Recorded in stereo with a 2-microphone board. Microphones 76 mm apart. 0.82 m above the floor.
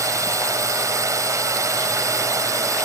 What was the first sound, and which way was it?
A drone, 45° right (ahead or behind).